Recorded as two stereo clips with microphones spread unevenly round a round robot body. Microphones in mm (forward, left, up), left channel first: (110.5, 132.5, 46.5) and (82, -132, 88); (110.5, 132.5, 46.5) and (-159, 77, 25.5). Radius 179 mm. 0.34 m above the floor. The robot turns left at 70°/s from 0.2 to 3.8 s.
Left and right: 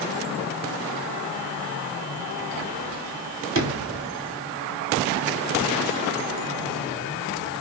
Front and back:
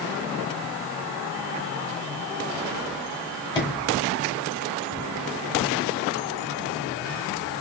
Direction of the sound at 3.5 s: 65° right.